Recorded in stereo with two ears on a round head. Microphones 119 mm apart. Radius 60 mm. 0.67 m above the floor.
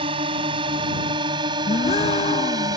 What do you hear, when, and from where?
0.0 s a drone: 40° right (ahead or behind); by 2.8 s 30° right (ahead or behind)
1.7 s a gasp: 45° left (ahead or behind)